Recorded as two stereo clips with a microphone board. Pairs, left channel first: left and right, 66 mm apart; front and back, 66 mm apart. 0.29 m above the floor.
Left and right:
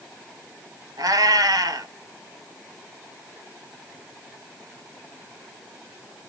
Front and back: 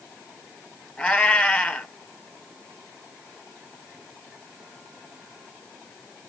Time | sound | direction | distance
1.0 | a cat meowing | 75° right | 1.4 m